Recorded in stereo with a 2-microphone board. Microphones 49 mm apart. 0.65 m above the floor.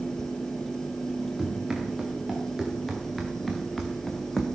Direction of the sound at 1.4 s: 5° right (ahead or behind).